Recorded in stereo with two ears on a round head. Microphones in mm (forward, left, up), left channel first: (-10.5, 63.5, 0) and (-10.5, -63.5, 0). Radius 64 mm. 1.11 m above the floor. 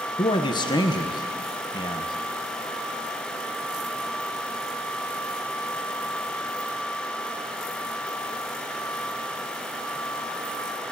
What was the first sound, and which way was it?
A man speaking, 30° left (ahead or behind).